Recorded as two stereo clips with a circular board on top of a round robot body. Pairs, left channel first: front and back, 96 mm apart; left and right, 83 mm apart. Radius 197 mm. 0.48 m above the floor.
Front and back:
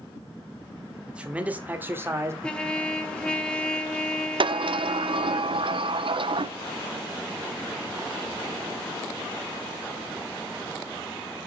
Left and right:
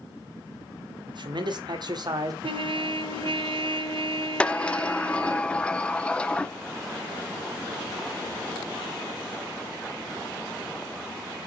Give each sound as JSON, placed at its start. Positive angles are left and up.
{"t": 1.1, "sound": "a man speaking", "azimuth_deg": -100, "distance_m": 2.5}
{"t": 2.4, "sound": "a trumpet", "azimuth_deg": -80, "distance_m": 1.1}
{"t": 4.4, "sound": "a sliding door", "azimuth_deg": 165, "distance_m": 0.8}